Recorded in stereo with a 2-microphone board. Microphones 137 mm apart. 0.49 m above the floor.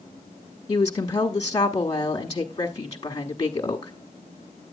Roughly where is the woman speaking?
Left.